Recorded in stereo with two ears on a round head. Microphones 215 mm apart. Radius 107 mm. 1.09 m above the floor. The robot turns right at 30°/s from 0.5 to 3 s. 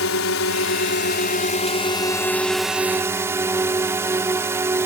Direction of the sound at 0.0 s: 115° left.